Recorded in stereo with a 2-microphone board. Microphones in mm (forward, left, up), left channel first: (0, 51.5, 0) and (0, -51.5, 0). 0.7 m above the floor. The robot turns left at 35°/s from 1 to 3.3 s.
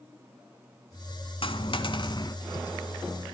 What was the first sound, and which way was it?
A dropped coin, 80° left.